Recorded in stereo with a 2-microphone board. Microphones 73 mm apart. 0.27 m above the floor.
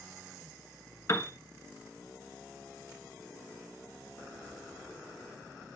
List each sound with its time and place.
1.1 s a piano: 40° left (ahead or behind), 1.2 m